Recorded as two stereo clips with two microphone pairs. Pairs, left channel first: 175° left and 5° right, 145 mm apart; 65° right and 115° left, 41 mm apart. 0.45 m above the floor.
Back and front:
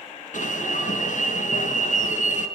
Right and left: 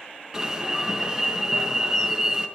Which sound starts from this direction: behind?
An alarm, at 0.3 s.